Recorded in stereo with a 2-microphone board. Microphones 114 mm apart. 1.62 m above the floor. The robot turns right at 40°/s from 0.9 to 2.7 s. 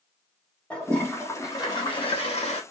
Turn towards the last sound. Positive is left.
turn(degrees=80)